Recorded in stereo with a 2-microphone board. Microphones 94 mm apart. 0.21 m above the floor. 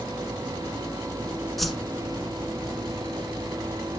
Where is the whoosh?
Centre (ahead or behind), 1.2 m.